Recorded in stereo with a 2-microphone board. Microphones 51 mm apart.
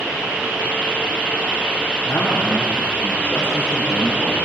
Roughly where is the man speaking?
Left.